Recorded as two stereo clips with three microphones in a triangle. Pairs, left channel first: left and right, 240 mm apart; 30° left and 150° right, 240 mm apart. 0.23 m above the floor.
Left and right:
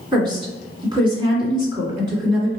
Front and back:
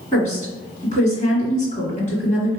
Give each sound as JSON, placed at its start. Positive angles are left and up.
{"t": 0.1, "sound": "a woman speaking", "azimuth_deg": -20, "distance_m": 2.0}